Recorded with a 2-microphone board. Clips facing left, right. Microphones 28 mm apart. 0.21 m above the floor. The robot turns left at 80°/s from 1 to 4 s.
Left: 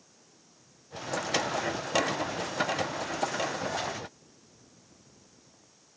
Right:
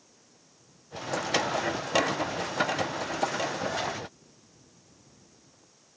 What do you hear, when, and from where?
Only background noise.